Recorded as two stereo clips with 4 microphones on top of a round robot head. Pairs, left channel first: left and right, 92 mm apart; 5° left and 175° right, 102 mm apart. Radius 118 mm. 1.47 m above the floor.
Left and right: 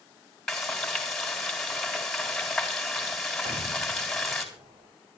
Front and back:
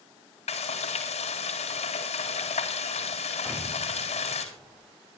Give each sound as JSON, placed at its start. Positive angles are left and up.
{"t": 0.5, "sound": "frying", "azimuth_deg": 5, "distance_m": 4.0}
{"t": 3.5, "sound": "an explosion", "azimuth_deg": -80, "distance_m": 6.0}